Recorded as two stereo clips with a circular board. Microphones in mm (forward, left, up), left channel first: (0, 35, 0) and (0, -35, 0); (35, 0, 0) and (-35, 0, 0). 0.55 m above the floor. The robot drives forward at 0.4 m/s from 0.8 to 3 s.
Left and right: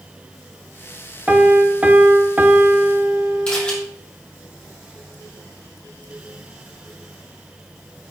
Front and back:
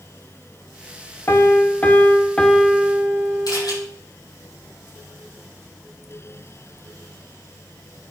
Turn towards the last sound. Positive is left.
turn(degrees=15)